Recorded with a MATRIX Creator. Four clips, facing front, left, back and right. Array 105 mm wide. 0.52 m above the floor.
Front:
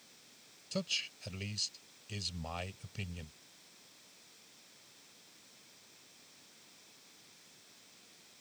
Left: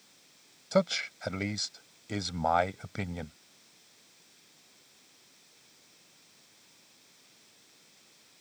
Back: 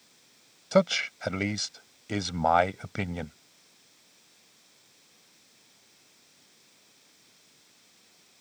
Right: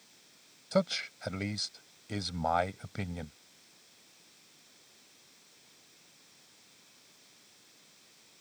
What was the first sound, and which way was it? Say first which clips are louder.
A man speaking: left 3 dB, back 17 dB; 170° left.